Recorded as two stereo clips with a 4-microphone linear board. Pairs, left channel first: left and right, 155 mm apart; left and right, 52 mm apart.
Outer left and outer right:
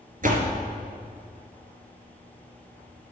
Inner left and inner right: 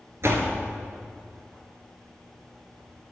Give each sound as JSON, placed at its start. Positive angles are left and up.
{"t": 0.2, "sound": "a door slam", "side_deg": -60, "distance_m": 1.8}